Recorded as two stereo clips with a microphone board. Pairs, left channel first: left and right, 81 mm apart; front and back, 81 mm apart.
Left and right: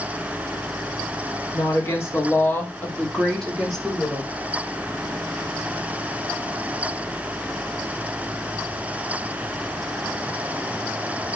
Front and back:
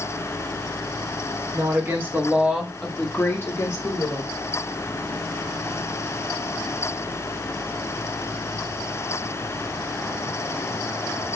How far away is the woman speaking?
About 1.2 m.